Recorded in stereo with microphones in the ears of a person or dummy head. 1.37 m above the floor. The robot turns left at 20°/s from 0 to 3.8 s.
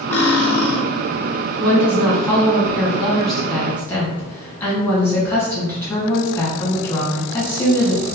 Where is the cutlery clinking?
10° left (ahead or behind), 0.8 m; by 0.8 s centre (ahead or behind), 0.8 m.